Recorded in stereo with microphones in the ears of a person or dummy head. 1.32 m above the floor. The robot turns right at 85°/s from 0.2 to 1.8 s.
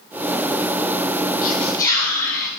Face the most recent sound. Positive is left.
turn(degrees=165)